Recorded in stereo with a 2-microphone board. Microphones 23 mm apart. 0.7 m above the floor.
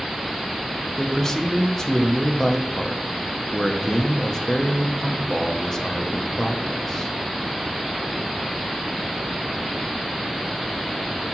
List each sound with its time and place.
1.0 s a man speaking: 20° left (ahead or behind), 0.7 m